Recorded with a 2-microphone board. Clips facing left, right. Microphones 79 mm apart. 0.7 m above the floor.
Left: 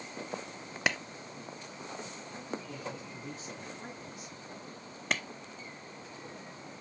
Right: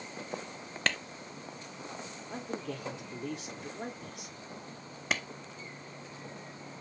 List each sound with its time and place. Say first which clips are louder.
0.9 s a clap: left 1 dB; 10° left (ahead or behind), 0.5 m
2.3 s a man speaking: right 4 dB; 70° right (ahead or behind), 2.5 m
5.1 s a clap: even; 5° right (ahead or behind), 0.8 m